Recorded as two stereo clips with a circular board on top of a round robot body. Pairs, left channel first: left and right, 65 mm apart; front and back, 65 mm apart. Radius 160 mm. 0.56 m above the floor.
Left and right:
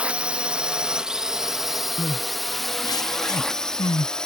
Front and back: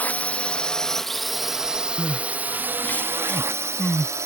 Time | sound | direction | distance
0.0 | a drone | 35° right | ?
2.0 | crying | 70° left | ?